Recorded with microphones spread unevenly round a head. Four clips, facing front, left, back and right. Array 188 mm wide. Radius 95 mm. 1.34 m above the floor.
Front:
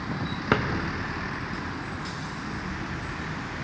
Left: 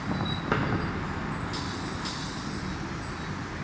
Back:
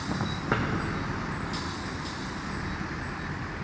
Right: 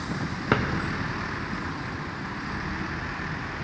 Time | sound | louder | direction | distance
0.5 | a drawer | right 4 dB, front 4 dB | 70° right | 0.5 m